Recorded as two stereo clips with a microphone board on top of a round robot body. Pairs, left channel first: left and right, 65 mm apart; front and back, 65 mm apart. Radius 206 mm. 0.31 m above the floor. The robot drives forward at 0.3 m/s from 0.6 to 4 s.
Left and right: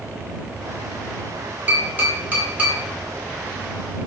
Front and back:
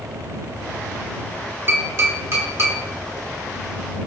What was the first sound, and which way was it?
Tapping, 145° right.